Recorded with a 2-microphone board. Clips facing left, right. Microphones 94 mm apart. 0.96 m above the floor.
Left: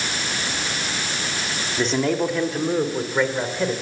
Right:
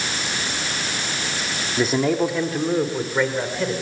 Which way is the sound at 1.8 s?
10° right (ahead or behind).